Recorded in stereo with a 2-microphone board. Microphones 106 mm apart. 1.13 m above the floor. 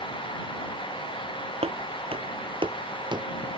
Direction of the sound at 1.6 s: 60° right (ahead or behind).